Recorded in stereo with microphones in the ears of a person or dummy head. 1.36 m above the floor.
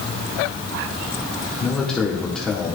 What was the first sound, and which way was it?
A man speaking, 5° left (ahead or behind).